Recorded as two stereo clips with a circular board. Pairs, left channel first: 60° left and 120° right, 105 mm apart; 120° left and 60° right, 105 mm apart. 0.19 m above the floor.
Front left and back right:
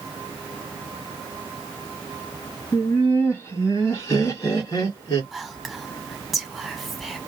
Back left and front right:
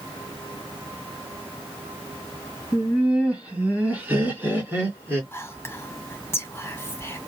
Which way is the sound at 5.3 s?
150° left.